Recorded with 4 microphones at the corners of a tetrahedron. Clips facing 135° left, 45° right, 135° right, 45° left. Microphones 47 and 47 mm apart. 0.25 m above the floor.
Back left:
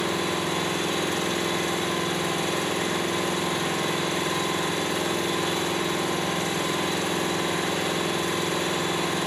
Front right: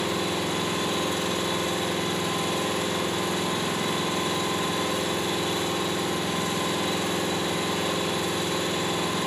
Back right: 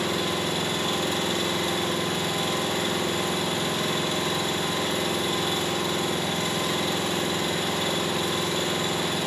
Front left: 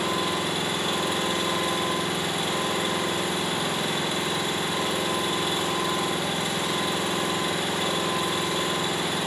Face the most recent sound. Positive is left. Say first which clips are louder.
# back left 1 dB, even
turn(degrees=120)